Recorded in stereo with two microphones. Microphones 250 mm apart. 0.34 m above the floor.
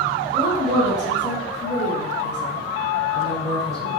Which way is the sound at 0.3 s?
25° right (ahead or behind).